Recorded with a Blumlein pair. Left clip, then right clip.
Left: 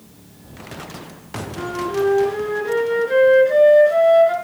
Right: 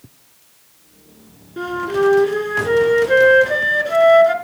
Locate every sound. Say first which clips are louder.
1.6 s a flute: right 3 dB; 70° right, 3.5 m